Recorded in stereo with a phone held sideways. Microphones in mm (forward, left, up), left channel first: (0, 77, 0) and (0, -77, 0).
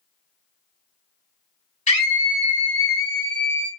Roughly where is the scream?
Left.